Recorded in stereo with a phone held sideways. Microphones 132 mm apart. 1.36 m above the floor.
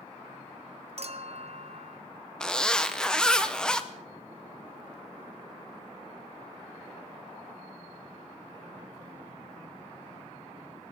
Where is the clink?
50° right (ahead or behind), 0.8 m.